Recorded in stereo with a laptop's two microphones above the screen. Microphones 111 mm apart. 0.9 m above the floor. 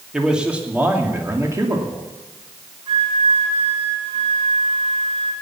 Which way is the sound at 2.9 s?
55° right (ahead or behind).